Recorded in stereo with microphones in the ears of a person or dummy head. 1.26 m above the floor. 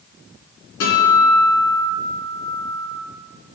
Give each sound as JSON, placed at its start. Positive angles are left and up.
{"t": 0.8, "sound": "a guitar", "side_deg": 55, "distance_m": 3.5}